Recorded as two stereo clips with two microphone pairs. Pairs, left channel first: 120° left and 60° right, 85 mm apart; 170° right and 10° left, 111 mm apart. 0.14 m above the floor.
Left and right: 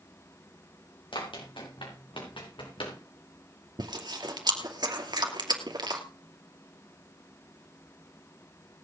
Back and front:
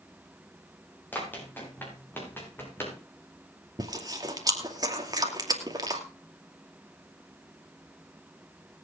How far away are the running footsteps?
About 7.5 m.